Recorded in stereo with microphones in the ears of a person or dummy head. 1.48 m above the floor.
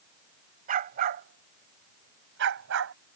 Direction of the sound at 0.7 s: 40° right (ahead or behind).